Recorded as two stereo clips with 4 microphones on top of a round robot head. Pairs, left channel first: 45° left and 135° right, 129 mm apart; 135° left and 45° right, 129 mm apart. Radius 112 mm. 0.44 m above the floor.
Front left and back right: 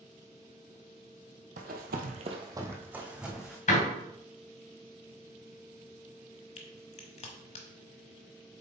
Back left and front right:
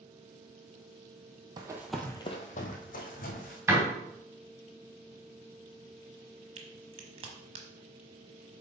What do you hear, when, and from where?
1.6 s running footsteps: 105° right, 0.8 m; by 3.6 s 140° left, 1.9 m
3.7 s a door slam: 30° left, 2.5 m
6.6 s a crack: 5° left, 1.1 m